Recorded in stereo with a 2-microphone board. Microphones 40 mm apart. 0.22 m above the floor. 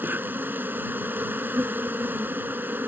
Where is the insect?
65° right (ahead or behind).